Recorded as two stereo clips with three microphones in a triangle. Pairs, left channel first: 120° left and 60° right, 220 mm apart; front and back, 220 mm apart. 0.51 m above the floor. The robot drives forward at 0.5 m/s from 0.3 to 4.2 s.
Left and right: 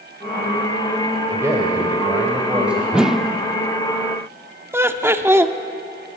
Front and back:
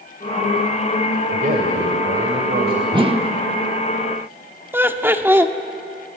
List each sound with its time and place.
1.3 s a man speaking: 135° right, 2.5 m; by 2.8 s 145° right, 3 m
2.9 s a whoosh: 140° right, 0.9 m; by 3.3 s 155° right, 1.0 m
4.7 s laughter: 120° right, 1.0 m